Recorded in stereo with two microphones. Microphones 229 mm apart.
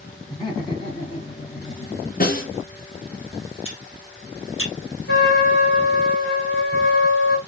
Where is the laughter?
20° left (ahead or behind), 1.7 m; by 2.7 s 30° left (ahead or behind), 2 m.